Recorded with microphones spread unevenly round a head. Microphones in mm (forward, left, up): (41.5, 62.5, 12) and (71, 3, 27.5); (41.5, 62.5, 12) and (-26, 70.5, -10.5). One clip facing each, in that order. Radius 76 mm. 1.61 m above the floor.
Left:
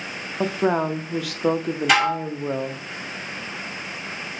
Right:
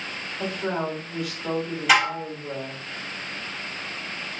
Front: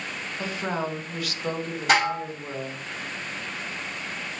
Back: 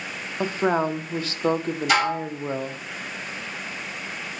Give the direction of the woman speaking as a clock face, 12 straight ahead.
8 o'clock.